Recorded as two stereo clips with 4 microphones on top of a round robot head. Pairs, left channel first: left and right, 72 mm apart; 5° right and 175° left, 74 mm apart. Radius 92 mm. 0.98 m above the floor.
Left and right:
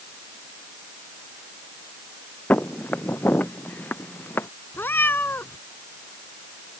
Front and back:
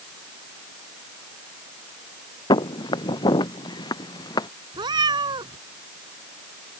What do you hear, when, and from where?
2.5 s footsteps: 15° left; by 4.5 s 20° left
4.7 s a cat meowing: 155° left